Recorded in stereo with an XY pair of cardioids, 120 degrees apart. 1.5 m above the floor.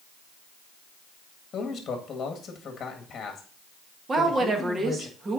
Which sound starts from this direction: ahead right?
A woman speaking, at 4.1 s.